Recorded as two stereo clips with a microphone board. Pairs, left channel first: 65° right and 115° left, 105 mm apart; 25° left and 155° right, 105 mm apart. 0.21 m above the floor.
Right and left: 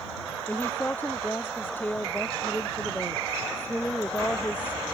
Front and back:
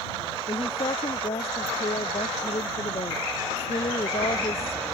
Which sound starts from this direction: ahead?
A woman speaking, at 0.5 s.